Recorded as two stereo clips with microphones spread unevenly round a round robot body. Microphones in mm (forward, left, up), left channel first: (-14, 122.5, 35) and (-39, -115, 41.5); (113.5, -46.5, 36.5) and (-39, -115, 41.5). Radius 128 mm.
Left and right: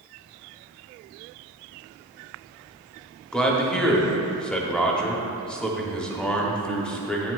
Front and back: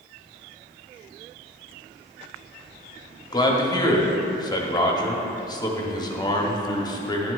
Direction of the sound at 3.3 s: 5° left.